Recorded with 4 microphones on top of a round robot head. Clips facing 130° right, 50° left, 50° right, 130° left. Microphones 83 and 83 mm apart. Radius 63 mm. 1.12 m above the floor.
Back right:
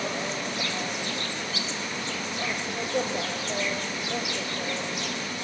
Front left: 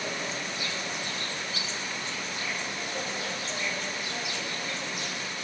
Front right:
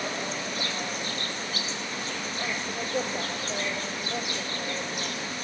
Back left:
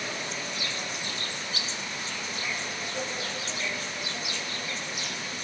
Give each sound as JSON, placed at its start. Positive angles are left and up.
{"t": 0.0, "sound": "an insect", "azimuth_deg": -100, "distance_m": 0.8}